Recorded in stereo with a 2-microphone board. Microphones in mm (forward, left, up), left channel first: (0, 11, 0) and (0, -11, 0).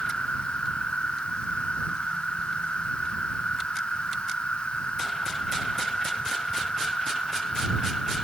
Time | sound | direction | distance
0.0 | an insect | 60° left (ahead or behind) | ?